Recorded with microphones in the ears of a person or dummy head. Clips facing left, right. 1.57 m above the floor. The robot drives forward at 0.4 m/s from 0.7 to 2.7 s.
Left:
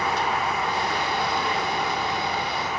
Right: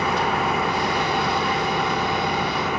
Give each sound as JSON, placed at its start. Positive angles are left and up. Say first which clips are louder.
{"t": 0.0, "sound": "an engine running", "louder": "right 3 dB", "side_deg": -60}